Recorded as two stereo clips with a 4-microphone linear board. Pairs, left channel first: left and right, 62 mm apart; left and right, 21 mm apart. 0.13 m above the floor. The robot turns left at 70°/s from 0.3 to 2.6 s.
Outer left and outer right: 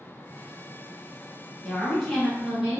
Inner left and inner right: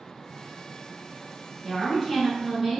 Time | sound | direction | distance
1.6 | a woman speaking | 15° left (ahead or behind) | 1.7 m